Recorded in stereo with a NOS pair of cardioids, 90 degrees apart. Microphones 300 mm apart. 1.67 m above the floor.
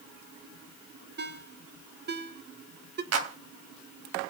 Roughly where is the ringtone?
Ahead right.